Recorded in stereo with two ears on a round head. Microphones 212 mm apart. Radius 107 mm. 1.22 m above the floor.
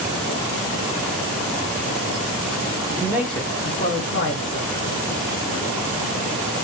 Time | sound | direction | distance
2.9 | a man speaking | 20° right (ahead or behind) | 0.6 m